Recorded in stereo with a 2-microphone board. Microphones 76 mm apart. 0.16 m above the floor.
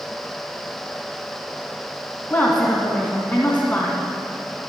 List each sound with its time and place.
2.3 s a woman speaking: 20° left (ahead or behind), 1.7 m